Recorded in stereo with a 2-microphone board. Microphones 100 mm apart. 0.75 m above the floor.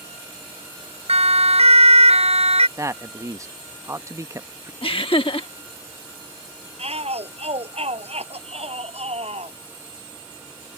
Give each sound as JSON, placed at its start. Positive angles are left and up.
{"t": 1.1, "sound": "a siren", "side_deg": -85}
{"t": 2.8, "sound": "a man speaking", "side_deg": -30}
{"t": 4.8, "sound": "laughter", "side_deg": 60}
{"t": 6.8, "sound": "a shout", "side_deg": -90}